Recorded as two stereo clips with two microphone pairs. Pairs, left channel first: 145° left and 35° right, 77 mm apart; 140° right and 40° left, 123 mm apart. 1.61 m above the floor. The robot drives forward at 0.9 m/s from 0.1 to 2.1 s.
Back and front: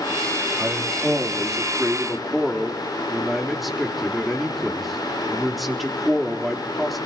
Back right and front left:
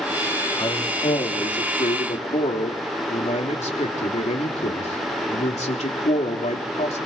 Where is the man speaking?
100° right, 3 m; by 7.1 s 120° right, 3.5 m.